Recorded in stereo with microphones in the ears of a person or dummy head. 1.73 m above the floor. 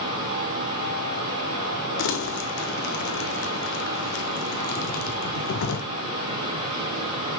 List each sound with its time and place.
0.0 s a fan: 20° right (ahead or behind), 3 m
2.0 s crumpling: 65° left (ahead or behind), 0.9 m